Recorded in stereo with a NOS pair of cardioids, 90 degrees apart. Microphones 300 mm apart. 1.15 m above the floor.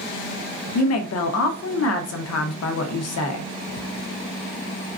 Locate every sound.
0.8 s a woman speaking: 55° left, 0.9 m